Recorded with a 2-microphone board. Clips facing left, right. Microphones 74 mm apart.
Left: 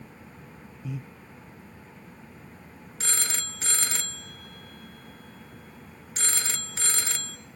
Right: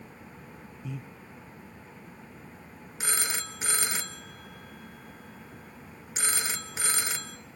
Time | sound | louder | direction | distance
0.8 | breathing | left 3 dB | 5° left (ahead or behind) | 0.9 m
3.0 | a phone ringing | right 2 dB | 15° right (ahead or behind) | 0.7 m